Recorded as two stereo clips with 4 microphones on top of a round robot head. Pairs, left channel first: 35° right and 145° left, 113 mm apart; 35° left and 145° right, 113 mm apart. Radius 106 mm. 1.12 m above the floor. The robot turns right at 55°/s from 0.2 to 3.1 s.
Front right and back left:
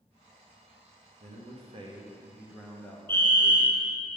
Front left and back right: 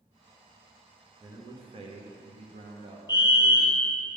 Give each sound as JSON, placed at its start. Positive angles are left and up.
{"t": 1.2, "sound": "a man speaking", "azimuth_deg": 150, "distance_m": 1.2}
{"t": 3.1, "sound": "a fire alarm", "azimuth_deg": 20, "distance_m": 1.1}